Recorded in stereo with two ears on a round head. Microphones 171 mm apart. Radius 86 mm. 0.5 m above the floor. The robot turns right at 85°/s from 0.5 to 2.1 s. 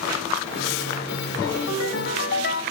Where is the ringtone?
65° left, 1.7 m; by 2.6 s 125° left, 1.7 m.